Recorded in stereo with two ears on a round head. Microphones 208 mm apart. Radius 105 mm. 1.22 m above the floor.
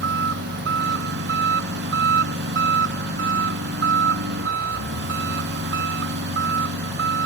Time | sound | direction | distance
0.0 | an engine running | 50° right (ahead or behind) | ?